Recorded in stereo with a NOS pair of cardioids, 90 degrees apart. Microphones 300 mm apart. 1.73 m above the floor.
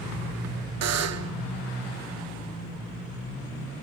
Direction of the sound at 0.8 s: 60° right.